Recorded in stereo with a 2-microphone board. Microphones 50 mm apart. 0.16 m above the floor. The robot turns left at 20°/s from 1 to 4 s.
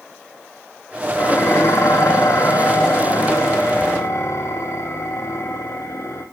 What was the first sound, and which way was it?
Dishes clattering, 125° left.